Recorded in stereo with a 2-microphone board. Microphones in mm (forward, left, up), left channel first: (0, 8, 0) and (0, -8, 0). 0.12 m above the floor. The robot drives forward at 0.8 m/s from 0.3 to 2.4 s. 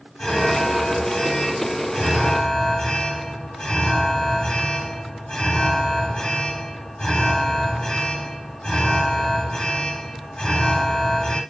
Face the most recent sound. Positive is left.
turn(degrees=65)  # may be behind; listen again after turning